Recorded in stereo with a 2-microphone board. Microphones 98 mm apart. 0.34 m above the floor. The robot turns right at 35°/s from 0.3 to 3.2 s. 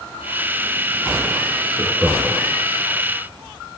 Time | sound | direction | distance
1.8 | laughter | 5° left (ahead or behind) | 3.5 m